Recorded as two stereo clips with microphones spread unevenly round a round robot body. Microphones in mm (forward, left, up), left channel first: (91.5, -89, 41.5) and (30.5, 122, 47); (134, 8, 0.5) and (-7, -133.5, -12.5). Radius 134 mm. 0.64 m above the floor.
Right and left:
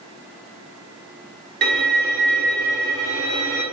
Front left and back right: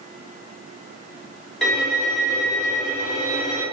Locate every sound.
1.6 s a violin: 135° left, 1.2 m